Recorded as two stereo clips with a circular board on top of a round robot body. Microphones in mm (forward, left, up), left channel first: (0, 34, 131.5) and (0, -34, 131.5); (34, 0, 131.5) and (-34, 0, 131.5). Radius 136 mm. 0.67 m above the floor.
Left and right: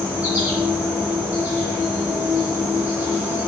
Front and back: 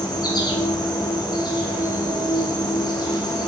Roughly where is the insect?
Ahead.